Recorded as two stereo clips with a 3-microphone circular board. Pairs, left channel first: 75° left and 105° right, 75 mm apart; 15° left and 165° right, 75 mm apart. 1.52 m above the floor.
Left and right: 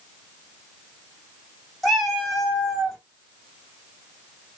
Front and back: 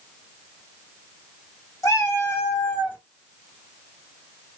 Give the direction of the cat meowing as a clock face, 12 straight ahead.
12 o'clock.